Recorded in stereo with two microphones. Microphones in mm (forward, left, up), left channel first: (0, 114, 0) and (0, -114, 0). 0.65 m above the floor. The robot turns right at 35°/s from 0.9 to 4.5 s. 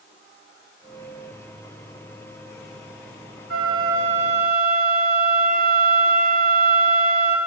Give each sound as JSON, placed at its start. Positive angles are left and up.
{"t": 3.5, "sound": "a flute", "azimuth_deg": -75, "distance_m": 2.5}